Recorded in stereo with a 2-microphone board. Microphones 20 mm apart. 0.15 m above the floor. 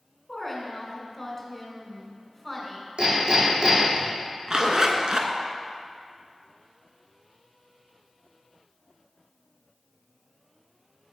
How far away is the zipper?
About 0.6 m.